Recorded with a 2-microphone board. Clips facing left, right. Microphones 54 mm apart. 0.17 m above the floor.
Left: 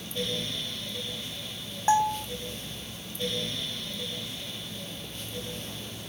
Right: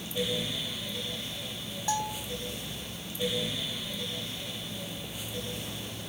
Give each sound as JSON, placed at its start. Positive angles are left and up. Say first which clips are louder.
{"t": 1.9, "sound": "a bell", "louder": "left 9 dB", "side_deg": 35}